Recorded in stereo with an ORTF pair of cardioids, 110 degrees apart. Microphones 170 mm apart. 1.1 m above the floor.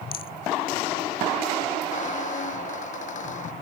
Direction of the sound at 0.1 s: 60° left.